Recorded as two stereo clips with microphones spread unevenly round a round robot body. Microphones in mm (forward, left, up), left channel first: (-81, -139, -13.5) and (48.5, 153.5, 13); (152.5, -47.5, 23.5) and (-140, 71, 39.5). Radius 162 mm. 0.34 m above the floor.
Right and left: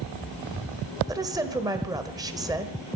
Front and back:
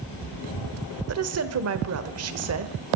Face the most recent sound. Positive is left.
turn(degrees=145)